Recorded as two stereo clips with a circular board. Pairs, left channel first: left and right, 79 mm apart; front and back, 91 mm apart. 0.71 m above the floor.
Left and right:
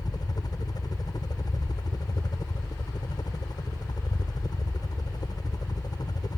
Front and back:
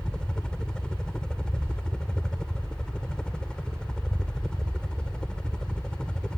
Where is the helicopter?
80° left.